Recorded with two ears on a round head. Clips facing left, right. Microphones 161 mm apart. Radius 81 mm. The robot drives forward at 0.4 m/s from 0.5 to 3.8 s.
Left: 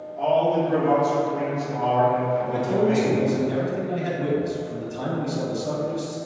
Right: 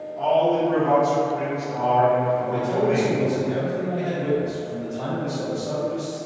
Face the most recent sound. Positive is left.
turn(degrees=60)  # may be behind; listen again after turning